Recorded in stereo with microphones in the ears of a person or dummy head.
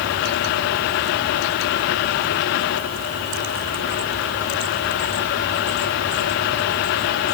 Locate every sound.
Only background noise.